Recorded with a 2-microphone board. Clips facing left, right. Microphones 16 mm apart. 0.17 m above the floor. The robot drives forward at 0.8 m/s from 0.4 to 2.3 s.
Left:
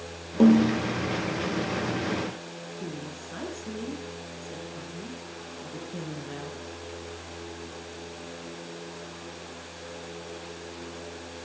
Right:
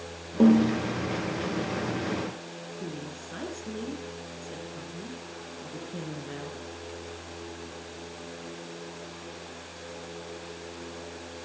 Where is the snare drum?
15° left (ahead or behind), 5 m.